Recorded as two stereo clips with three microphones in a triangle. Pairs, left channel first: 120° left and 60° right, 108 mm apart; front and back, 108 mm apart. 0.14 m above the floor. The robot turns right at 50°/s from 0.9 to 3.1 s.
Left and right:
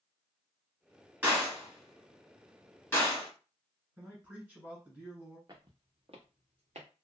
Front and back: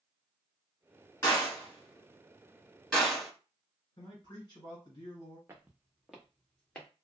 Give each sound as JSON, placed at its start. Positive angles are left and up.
{"t": 1.2, "sound": "a gunshot", "azimuth_deg": -10, "distance_m": 1.7}
{"t": 4.0, "sound": "a man speaking", "azimuth_deg": 15, "distance_m": 1.7}
{"t": 5.5, "sound": "footsteps", "azimuth_deg": -115, "distance_m": 0.8}